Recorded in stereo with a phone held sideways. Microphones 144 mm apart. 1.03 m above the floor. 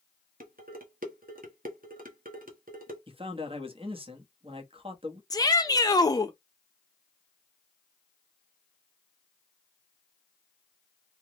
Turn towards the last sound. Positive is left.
turn(degrees=25)  # may be behind; listen again after turning